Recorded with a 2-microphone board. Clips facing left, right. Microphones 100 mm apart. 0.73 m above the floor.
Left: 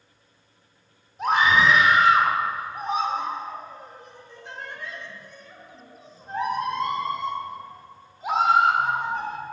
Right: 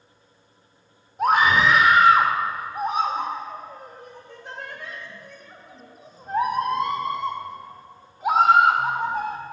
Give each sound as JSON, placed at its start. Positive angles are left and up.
{"t": 1.2, "sound": "a scream", "side_deg": -55, "distance_m": 2.0}